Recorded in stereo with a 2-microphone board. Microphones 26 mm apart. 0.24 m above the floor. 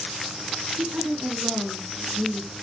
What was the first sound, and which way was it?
A woman speaking, 45° right (ahead or behind).